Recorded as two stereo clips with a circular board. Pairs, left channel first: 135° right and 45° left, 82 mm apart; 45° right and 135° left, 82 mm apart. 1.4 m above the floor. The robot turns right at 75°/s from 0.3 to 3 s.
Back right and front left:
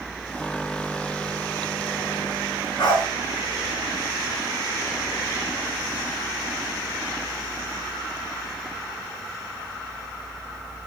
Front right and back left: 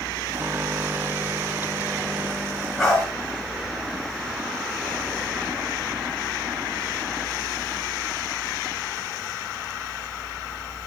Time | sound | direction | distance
2.8 | a dog barking | 130° right | 4.5 m